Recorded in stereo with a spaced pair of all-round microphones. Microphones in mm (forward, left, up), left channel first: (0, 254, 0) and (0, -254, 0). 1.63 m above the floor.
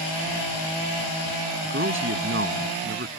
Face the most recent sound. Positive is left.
turn(degrees=-25)  # may be behind; listen again after turning